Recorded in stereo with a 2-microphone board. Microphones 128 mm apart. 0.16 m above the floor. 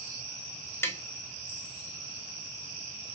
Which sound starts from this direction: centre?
Tapping, at 0.8 s.